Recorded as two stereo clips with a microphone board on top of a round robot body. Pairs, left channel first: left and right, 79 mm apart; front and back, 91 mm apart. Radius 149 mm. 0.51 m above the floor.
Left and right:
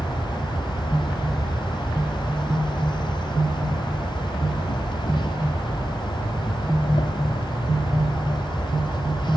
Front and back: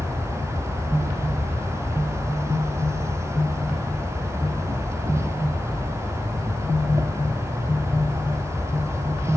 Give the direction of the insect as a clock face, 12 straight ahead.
8 o'clock.